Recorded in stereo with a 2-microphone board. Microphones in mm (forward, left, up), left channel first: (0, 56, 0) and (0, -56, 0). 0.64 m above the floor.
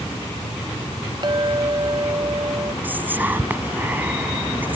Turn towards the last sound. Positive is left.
turn(degrees=-15)  # may be behind; listen again after turning